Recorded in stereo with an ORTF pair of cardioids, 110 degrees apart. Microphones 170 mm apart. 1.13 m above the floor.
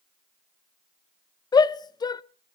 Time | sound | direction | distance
1.5 | a shout | 25° left | 0.7 m